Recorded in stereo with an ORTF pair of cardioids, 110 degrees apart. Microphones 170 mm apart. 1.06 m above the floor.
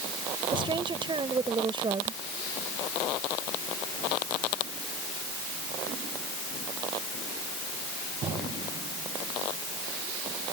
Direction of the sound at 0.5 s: 30° right.